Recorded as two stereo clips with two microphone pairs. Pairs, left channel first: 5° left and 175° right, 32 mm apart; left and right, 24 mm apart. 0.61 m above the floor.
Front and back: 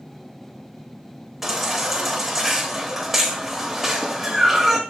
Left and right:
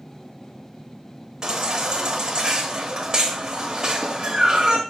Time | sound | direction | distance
1.4 | a baby crying | 100° right | 0.8 m